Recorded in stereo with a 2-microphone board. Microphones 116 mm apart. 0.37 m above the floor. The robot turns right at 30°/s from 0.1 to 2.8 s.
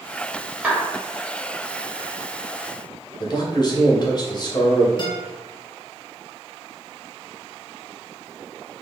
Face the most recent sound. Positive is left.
turn(degrees=45)  # may be behind; listen again after turning